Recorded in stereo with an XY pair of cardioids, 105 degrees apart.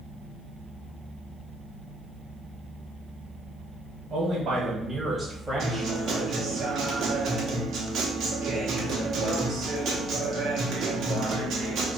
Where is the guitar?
65° right, 1.1 m.